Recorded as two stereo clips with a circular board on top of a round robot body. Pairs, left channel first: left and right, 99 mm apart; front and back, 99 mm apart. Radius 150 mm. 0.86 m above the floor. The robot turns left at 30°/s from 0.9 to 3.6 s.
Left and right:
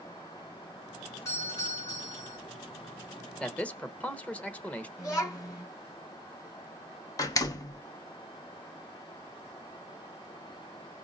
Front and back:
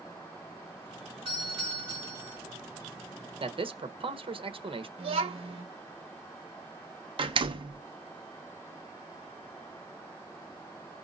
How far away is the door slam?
About 1.1 m.